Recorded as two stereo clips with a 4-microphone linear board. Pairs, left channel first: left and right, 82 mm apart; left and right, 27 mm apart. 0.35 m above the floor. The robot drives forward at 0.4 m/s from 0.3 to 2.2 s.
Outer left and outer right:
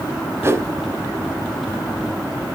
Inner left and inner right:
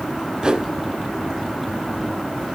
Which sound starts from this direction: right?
A whoosh, at 0.4 s.